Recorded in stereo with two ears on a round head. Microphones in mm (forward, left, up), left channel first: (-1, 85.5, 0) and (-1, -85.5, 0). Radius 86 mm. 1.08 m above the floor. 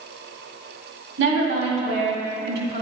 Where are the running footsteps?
I don't hear running footsteps.